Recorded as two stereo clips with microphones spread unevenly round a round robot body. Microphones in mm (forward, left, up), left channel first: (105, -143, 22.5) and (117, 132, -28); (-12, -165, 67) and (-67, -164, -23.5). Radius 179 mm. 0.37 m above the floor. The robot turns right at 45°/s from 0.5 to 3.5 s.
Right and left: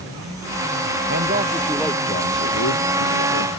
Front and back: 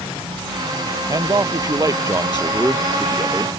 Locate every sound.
1.1 s a man speaking: 150° left; by 3.5 s 105° right